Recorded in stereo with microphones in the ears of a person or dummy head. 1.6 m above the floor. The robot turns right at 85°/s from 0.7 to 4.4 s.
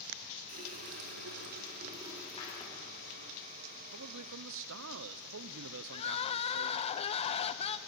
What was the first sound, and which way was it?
A running tap, 140° right.